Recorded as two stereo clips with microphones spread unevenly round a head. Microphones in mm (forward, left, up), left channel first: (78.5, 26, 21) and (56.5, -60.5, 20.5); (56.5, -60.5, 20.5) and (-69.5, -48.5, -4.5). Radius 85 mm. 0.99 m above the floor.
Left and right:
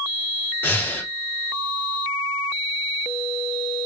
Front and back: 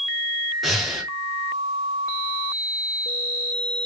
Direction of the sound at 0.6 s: 55° left.